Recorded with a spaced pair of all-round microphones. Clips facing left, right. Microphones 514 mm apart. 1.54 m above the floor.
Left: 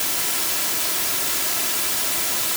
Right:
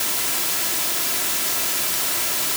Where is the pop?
No pop in this recording.